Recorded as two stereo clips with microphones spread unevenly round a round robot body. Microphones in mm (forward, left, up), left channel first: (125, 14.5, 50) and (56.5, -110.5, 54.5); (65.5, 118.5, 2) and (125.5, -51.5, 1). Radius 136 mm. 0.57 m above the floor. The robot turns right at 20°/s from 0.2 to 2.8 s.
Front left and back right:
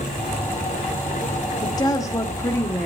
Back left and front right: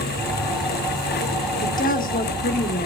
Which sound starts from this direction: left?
A woman speaking, at 1.6 s.